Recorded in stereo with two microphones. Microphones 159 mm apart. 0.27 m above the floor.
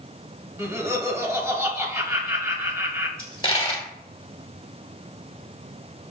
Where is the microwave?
I don't hear a microwave.